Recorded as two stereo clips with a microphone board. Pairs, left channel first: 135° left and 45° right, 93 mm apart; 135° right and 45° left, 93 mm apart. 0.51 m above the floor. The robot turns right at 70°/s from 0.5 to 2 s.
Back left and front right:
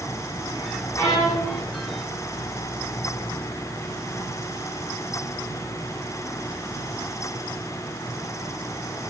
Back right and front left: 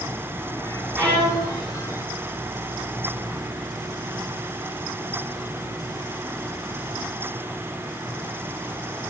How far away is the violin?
About 1.7 m.